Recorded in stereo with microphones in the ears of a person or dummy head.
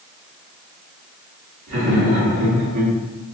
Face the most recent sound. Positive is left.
turn(degrees=-85)